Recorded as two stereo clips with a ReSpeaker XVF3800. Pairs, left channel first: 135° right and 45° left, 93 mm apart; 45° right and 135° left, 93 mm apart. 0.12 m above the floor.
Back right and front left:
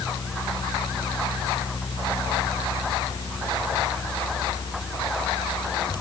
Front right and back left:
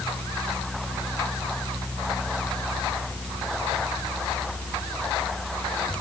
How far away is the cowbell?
No cowbell in this recording.